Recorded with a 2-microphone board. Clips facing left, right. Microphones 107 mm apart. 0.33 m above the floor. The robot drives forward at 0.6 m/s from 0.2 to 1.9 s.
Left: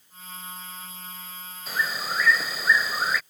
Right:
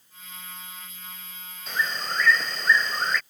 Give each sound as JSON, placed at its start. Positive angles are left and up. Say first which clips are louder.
{"t": 1.7, "sound": "a bird", "louder": "even", "side_deg": 5}